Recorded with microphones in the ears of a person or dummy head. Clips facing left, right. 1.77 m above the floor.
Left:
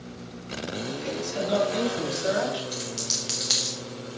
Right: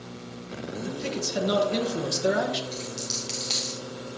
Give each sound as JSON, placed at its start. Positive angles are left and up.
{"t": 0.8, "sound": "a man speaking", "side_deg": -65, "distance_m": 2.0}
{"t": 2.7, "sound": "a dropped coin", "side_deg": 15, "distance_m": 1.3}